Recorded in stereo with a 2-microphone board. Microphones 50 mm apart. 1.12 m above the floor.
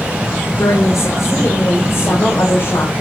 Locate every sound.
0.6 s a woman speaking: 85° left, 3.5 m; by 2.9 s 55° left (ahead or behind), 4 m